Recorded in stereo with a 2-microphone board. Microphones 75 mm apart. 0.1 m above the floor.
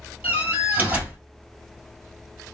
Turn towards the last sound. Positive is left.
turn(degrees=-25)  # may be behind; listen again after turning